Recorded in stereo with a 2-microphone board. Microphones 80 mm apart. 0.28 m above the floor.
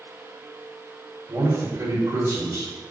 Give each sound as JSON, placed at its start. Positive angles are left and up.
{"t": 1.3, "sound": "a man speaking", "side_deg": -35, "distance_m": 1.2}